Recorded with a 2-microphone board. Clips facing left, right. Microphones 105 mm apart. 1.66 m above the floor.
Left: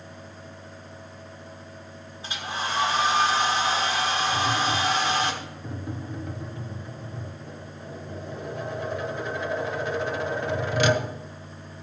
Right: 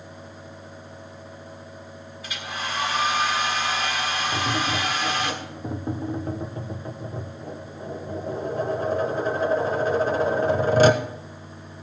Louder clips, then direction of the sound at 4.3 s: Left 1 dB; 40° right (ahead or behind).